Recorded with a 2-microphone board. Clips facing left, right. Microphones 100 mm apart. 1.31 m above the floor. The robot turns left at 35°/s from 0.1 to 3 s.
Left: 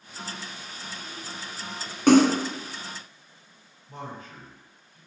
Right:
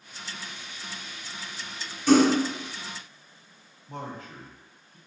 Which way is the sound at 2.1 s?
65° left (ahead or behind).